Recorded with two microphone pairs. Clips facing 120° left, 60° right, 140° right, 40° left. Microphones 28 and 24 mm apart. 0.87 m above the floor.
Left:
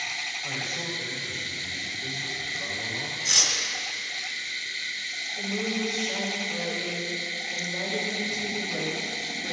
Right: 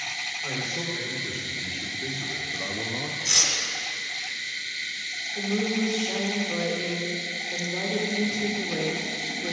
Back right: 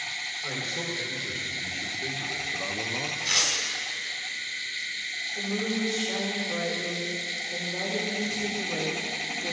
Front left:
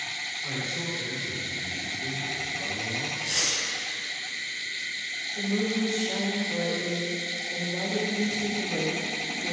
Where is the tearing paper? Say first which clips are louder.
Even, back right 3 dB; 145° right, 2.0 m.